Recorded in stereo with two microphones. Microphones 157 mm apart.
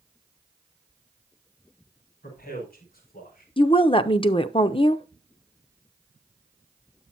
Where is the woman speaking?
35° left (ahead or behind), 0.6 m.